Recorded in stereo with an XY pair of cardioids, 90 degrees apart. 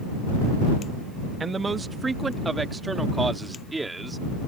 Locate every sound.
1.4 s a man speaking: 40° right; by 4.5 s 20° right